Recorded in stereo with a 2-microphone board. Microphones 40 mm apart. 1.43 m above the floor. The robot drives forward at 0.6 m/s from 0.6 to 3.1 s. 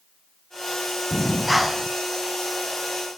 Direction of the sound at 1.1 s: 5° right (ahead or behind).